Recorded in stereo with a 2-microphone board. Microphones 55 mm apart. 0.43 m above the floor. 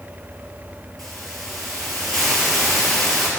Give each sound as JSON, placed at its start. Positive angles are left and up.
{"t": 1.0, "sound": "a hiss", "side_deg": 5, "distance_m": 3.5}